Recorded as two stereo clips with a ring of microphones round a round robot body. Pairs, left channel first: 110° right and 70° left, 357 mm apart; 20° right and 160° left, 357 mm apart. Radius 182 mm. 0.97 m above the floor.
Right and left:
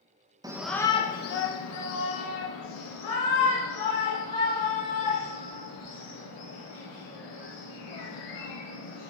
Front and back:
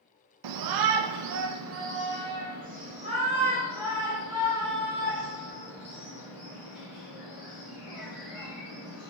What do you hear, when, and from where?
0.4 s a shout: 145° left, 0.6 m; by 9.1 s 115° right, 4.5 m